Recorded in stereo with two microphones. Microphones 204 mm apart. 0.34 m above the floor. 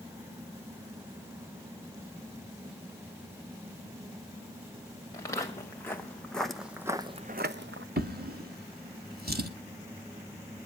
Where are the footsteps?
15° left (ahead or behind), 2.5 m; by 7.9 s 65° right (ahead or behind), 0.7 m.